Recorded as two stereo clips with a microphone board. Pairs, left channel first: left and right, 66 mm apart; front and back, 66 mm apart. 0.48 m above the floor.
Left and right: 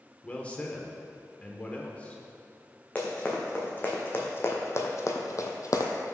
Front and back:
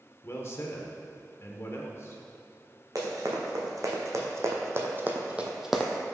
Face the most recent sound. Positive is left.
turn(degrees=90)